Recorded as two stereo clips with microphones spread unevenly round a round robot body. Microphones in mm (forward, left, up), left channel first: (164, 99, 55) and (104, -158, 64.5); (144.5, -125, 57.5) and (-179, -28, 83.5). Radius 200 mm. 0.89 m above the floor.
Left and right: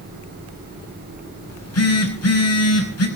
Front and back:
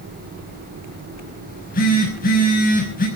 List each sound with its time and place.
1.5 s a phone buzzing: 50° left, 5.5 m